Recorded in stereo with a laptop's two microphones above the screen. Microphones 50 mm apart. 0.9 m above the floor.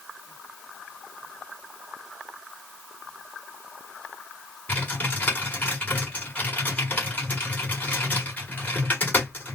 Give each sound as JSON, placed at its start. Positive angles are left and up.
{"t": 4.7, "sound": "typing on a keyboard", "side_deg": 40, "distance_m": 1.4}